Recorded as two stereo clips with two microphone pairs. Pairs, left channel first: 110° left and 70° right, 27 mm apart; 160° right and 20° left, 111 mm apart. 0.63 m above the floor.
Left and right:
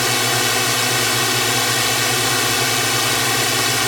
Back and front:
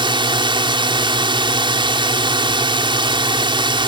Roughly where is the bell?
No bell in this recording.